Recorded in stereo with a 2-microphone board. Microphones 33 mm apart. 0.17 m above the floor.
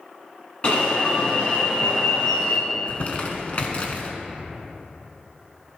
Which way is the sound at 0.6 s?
35° left (ahead or behind).